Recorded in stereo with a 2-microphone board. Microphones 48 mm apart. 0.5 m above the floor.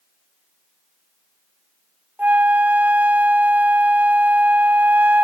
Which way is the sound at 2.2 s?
35° right (ahead or behind).